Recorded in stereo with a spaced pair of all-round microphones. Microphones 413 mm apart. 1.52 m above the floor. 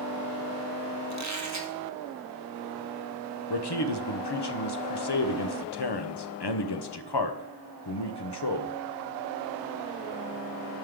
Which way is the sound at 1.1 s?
40° right (ahead or behind).